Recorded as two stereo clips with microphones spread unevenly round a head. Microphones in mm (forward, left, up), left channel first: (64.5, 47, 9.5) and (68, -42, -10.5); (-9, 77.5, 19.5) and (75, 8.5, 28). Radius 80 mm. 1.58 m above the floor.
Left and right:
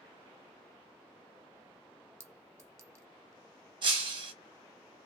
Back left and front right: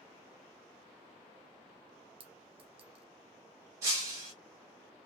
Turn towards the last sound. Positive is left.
turn(degrees=-90)